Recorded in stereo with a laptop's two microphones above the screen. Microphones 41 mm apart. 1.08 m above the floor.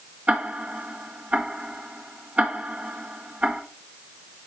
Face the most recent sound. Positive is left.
turn(degrees=-40)  # may be behind; listen again after turning